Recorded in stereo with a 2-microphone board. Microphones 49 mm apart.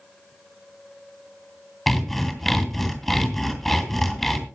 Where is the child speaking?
No child speaking in this recording.